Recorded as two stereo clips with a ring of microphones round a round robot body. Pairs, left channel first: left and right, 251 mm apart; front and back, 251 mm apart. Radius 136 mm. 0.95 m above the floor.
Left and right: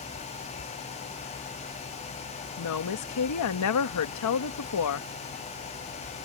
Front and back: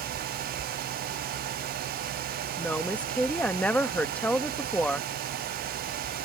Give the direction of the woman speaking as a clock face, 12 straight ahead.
9 o'clock.